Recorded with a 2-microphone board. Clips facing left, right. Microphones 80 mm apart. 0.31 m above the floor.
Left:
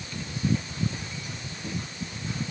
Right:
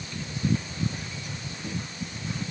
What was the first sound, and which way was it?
Only background noise.